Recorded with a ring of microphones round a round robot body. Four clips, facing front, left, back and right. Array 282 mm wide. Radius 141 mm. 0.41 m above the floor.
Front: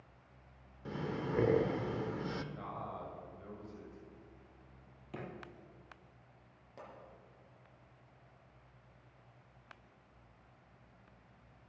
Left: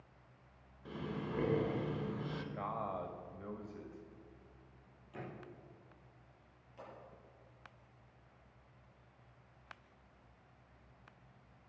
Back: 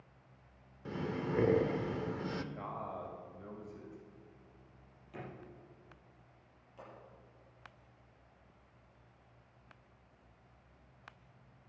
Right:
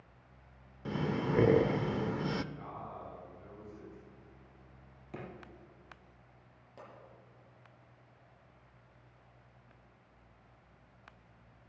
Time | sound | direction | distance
0.8 | breathing | 90° right | 0.5 m
2.5 | a man speaking | 105° left | 1.9 m
5.1 | a drawer | 55° right | 3.5 m
6.8 | a pop | 40° right | 7 m